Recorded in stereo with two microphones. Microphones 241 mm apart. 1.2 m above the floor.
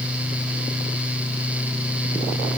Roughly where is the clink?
I don't hear a clink.